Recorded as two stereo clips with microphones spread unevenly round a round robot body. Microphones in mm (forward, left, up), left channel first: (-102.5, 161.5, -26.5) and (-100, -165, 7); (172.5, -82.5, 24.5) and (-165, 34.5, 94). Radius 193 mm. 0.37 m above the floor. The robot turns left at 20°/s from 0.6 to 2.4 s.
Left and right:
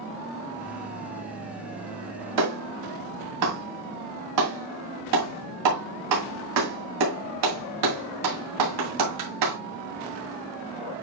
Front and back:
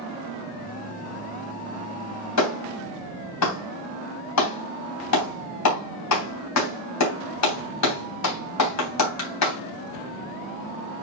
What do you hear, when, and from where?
2.4 s a clap: 50° right, 2.5 m